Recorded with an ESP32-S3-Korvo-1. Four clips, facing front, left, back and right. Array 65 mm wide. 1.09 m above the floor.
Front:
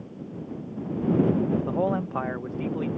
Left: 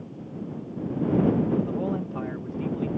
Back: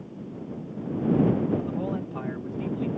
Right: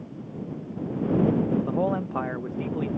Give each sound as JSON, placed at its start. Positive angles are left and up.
{"t": 1.7, "sound": "a man speaking", "azimuth_deg": -40}